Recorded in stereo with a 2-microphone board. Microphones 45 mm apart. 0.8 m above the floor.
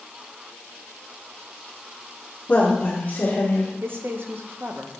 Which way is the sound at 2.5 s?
25° left (ahead or behind).